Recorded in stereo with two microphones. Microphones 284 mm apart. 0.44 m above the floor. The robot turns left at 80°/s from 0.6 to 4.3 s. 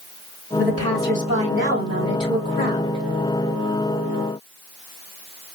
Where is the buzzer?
No buzzer in this recording.